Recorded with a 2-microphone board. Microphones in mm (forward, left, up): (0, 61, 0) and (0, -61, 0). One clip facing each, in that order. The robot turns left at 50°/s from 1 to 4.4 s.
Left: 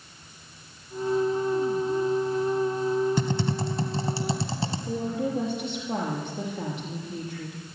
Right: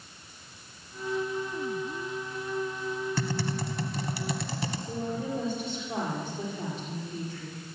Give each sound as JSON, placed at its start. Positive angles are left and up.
{"t": 3.2, "sound": "typing on a keyboard", "azimuth_deg": 140, "distance_m": 1.3}
{"t": 4.9, "sound": "a woman speaking", "side_deg": 70, "distance_m": 5.5}